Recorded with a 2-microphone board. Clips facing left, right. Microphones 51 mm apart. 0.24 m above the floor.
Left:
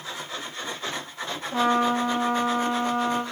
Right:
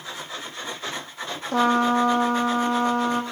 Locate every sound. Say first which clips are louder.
1.5 s a trumpet: right 3 dB; 65° right (ahead or behind), 3.5 m